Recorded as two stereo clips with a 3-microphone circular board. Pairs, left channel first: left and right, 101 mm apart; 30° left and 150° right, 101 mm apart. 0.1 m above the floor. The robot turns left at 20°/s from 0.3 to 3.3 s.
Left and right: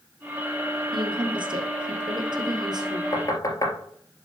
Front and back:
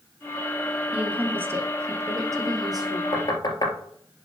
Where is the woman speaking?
80° right, 2.5 m; by 3.0 s 120° right, 2.5 m.